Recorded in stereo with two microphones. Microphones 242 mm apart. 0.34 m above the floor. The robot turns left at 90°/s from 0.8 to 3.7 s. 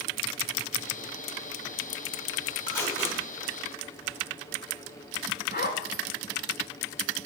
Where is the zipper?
45° left (ahead or behind), 0.6 m.